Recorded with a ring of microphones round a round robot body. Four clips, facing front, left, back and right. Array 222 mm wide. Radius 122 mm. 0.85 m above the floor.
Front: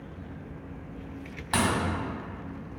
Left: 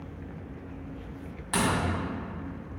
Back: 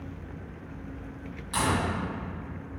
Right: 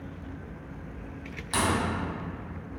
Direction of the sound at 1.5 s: 15° left.